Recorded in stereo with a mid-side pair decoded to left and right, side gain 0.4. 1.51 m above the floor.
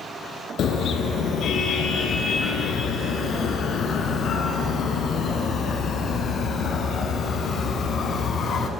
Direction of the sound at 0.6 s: 70° left.